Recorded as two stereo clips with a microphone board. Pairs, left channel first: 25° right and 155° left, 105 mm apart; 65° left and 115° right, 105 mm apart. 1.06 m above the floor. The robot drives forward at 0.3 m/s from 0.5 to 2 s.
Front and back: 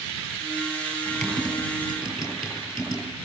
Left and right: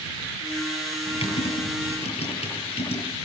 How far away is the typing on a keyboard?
About 9 m.